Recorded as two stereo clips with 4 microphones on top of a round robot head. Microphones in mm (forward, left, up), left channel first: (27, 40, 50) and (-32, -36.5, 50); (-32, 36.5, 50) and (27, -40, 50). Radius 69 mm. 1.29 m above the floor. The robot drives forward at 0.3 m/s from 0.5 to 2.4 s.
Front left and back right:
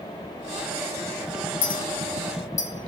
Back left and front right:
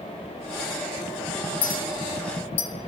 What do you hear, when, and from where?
1.6 s a clink: 90° left, 0.7 m; by 2.7 s 110° left, 0.7 m